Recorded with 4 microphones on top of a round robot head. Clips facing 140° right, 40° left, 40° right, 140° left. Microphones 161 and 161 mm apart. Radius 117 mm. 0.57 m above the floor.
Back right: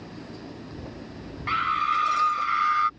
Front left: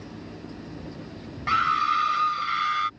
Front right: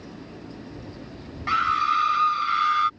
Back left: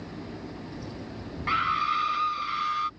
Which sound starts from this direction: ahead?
A scream, at 1.5 s.